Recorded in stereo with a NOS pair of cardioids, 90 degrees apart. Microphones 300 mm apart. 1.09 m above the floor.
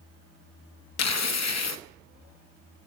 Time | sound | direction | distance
1.0 | tearing paper | 60° left | 0.9 m